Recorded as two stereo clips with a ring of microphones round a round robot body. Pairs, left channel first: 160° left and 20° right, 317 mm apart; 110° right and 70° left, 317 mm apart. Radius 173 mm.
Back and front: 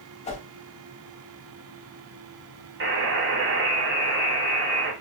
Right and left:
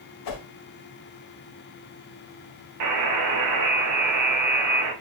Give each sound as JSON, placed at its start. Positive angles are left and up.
{"t": 0.2, "sound": "a whoosh", "azimuth_deg": -130, "distance_m": 0.9}
{"t": 2.8, "sound": "a buzzer", "azimuth_deg": 30, "distance_m": 0.9}